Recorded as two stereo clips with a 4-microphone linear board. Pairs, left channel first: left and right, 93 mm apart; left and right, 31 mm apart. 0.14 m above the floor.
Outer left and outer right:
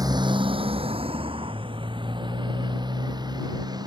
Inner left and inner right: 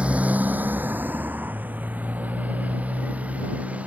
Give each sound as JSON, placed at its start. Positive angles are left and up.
{"t": 0.0, "sound": "a motorcycle", "side_deg": -40}